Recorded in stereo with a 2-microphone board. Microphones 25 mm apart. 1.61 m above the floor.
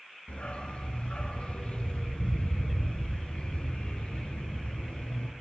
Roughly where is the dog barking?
Left.